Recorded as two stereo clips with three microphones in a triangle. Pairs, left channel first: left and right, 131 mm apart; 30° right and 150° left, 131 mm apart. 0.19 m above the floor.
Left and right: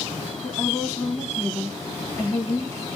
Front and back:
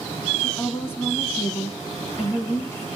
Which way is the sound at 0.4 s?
30° left.